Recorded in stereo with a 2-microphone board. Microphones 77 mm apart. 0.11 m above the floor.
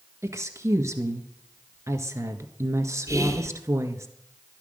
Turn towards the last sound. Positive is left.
turn(degrees=-45)  # may be behind; listen again after turning